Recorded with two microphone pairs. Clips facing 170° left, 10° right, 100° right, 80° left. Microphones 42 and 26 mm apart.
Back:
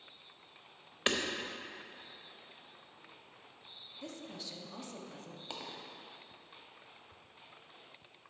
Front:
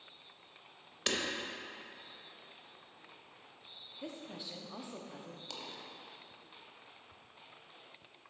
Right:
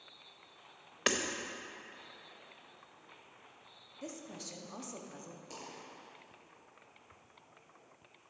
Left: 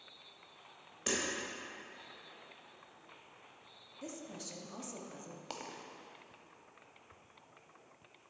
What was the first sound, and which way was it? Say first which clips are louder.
Hammering: back 3 dB, right 4 dB; 130° right.